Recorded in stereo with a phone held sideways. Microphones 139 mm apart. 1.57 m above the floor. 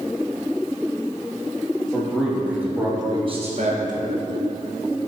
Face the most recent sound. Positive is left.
turn(degrees=-70)  # may be behind; listen again after turning